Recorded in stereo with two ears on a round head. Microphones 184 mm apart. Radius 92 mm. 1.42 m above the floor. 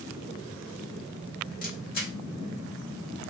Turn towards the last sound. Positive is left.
turn(degrees=45)  # may be behind; listen again after turning